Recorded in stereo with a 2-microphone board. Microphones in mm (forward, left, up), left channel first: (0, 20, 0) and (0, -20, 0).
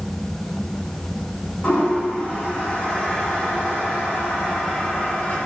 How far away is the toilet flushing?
About 1.4 m.